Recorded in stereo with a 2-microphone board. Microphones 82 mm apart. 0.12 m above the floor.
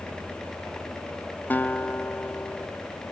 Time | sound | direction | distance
1.5 | a guitar | 20° left (ahead or behind) | ?